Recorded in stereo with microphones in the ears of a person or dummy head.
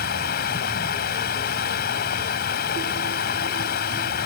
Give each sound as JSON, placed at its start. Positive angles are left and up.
{"t": 0.0, "sound": "running water", "side_deg": 50}